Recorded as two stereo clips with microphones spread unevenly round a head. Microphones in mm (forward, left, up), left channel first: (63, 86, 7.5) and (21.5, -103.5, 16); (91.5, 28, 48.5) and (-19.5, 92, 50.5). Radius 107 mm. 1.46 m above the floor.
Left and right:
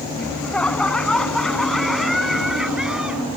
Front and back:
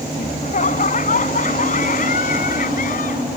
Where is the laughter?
5° right; by 3.3 s 15° right.